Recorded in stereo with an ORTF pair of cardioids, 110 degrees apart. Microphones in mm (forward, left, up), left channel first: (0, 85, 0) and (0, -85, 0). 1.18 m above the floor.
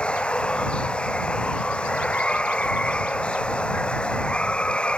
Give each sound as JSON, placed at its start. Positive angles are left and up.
{"t": 0.0, "sound": "running water", "azimuth_deg": 5}